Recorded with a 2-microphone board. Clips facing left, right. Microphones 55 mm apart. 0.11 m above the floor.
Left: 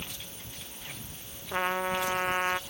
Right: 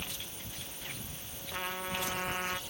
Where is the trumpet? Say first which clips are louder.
Left 8 dB; 35° left (ahead or behind).